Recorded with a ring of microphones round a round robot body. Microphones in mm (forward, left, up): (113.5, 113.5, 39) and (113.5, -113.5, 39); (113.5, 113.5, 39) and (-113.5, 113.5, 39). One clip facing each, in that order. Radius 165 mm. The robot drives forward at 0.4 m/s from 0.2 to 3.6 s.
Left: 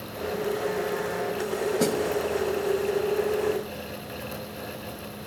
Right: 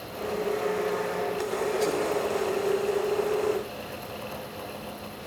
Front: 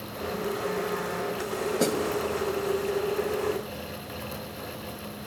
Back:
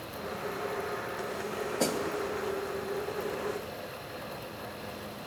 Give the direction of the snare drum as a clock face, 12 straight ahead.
10 o'clock.